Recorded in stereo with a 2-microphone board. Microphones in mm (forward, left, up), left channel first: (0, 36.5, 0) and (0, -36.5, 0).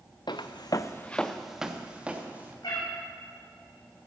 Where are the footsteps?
80° left, 0.9 m; by 2.5 s 20° right (ahead or behind), 2.5 m.